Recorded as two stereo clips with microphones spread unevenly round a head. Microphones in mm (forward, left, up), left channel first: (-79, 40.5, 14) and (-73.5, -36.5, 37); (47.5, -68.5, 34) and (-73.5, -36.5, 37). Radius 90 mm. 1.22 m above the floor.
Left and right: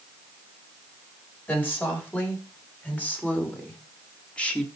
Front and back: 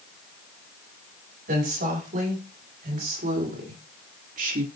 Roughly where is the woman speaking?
Behind.